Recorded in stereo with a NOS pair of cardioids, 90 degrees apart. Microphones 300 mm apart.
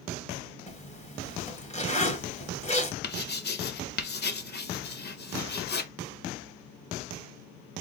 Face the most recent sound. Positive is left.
turn(degrees=35)